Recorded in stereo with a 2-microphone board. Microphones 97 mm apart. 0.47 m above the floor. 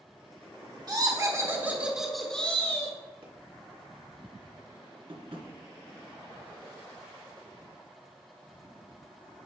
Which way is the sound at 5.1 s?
70° right (ahead or behind).